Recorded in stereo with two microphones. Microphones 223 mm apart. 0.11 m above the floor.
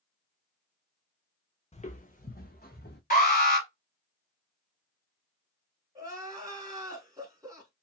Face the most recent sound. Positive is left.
turn(degrees=-15)  # may be behind; listen again after turning